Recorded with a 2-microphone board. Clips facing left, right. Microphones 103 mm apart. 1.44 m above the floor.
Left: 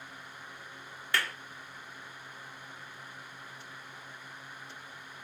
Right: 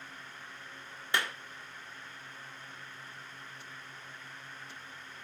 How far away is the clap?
About 1.1 m.